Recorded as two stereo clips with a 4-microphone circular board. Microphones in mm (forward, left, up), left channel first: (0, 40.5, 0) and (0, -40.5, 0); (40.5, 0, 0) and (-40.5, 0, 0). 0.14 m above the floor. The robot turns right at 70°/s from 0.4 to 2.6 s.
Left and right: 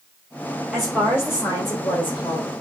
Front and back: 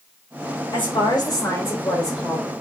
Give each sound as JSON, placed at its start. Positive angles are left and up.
{"t": 0.7, "sound": "a woman speaking", "azimuth_deg": -10, "distance_m": 3.0}